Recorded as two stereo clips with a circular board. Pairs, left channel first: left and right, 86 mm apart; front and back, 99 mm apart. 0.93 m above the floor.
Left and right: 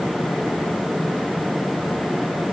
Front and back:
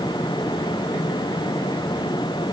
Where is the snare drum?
I don't hear a snare drum.